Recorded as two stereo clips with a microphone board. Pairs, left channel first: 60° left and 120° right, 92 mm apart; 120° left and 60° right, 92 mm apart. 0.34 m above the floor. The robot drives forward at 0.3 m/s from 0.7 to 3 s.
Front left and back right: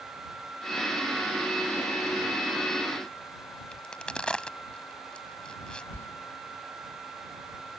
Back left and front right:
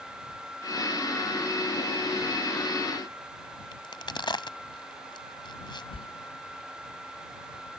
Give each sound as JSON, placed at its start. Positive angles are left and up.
{"t": 3.7, "sound": "a crack", "azimuth_deg": 140}
{"t": 5.9, "sound": "a sliding door", "azimuth_deg": 125}